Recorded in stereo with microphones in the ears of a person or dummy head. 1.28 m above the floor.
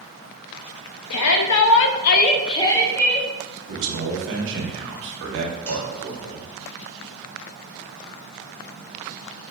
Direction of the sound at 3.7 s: 70° right (ahead or behind).